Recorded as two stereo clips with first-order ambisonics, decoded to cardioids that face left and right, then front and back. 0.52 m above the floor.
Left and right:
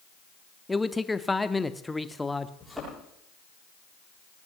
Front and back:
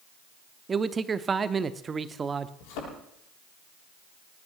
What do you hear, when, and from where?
0.7 s a man speaking: 160° left, 0.7 m
2.6 s a thud: straight ahead, 8.5 m